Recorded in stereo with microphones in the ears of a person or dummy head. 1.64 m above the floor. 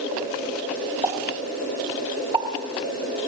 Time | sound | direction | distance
1.0 | a pop | 25° right (ahead or behind) | 4 m